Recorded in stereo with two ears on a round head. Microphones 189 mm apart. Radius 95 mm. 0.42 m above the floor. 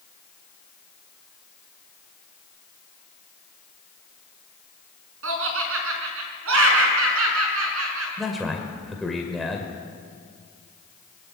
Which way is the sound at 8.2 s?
Centre (ahead or behind).